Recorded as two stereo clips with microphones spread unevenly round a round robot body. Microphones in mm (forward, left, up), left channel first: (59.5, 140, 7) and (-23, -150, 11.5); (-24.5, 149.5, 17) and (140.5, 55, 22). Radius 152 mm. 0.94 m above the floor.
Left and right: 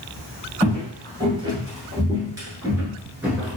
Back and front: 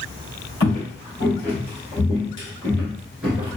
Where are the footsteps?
Straight behind, 1.6 m; by 3.6 s 30° right, 0.9 m.